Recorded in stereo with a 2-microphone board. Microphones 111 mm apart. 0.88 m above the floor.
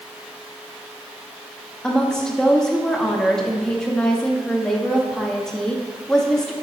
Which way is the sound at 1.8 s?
5° left (ahead or behind).